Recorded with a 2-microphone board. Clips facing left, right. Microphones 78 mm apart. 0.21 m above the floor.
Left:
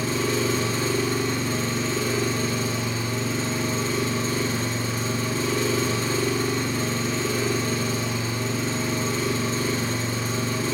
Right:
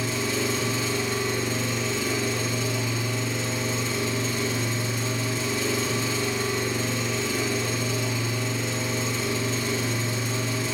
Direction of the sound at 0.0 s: 45° left (ahead or behind).